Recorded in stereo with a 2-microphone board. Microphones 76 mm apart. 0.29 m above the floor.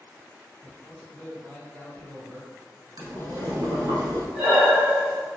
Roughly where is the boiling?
Right.